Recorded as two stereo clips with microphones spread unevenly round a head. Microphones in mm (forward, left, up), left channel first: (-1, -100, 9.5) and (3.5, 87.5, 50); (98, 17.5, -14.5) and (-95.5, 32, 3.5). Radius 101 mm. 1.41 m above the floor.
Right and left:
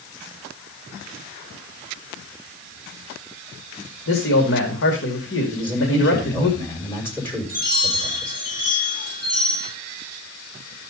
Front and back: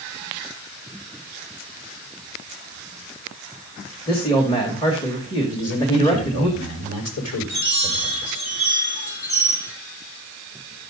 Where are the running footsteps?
I don't hear running footsteps.